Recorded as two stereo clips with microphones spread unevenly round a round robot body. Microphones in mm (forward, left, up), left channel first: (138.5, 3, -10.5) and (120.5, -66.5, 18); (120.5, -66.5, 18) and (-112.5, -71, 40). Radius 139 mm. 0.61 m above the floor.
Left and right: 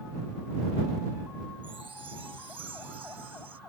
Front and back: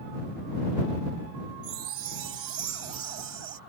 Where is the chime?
160° right.